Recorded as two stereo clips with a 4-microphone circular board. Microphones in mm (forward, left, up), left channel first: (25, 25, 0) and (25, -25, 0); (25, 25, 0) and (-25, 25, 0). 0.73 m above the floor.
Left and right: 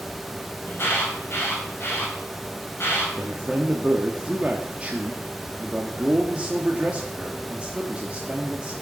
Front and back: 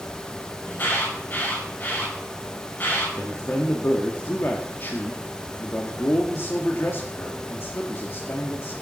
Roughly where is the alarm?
Ahead left.